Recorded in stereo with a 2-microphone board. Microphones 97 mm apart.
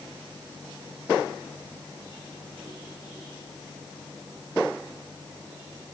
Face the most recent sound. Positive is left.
No sound to turn to.